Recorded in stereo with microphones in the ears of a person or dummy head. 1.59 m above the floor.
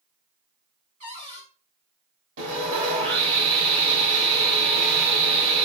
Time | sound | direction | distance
1.0 | a cupboard door | 35° right (ahead or behind) | 1.5 m
2.4 | sawing | 65° right (ahead or behind) | 2.5 m